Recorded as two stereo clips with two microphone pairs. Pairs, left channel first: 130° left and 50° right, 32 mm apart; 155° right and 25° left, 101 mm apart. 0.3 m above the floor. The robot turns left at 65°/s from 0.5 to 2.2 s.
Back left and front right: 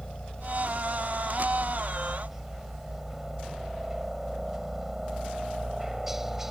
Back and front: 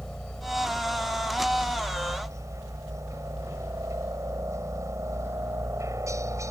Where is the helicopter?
125° left; by 6.5 s 15° left.